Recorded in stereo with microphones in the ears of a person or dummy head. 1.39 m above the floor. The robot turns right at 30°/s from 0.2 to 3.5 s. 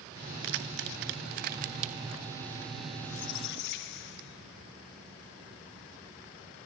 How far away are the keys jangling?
About 1.1 m.